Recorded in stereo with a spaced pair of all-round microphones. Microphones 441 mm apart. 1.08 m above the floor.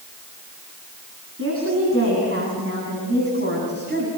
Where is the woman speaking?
30° right (ahead or behind), 9 m; by 4.1 s 25° right (ahead or behind), 7.5 m.